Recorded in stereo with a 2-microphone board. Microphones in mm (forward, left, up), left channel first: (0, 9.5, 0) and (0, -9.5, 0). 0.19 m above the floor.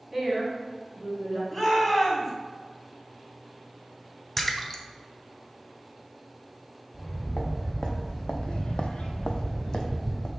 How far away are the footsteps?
About 1.3 m.